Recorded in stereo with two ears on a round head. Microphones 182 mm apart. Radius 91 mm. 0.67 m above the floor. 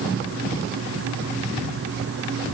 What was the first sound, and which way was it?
Only background noise.